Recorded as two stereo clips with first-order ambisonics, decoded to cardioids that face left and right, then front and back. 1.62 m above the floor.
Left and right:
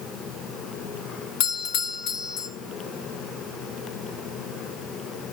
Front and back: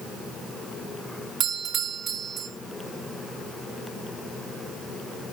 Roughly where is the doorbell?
Behind left.